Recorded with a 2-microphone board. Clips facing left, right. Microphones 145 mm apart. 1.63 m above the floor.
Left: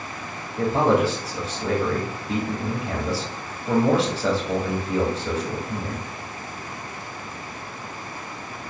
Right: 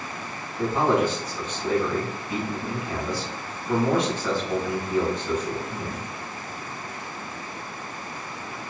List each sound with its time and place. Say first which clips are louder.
0.6 s a man speaking: left 2 dB; 85° left, 2.5 m